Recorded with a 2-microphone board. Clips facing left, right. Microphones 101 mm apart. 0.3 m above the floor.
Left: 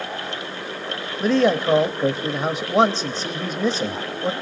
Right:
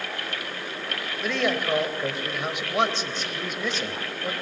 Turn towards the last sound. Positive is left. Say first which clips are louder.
# left 8 dB
turn(degrees=35)  # may be behind; listen again after turning